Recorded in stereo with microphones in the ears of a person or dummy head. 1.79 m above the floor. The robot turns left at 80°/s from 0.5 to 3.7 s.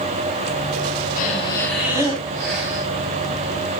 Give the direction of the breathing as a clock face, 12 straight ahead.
10 o'clock.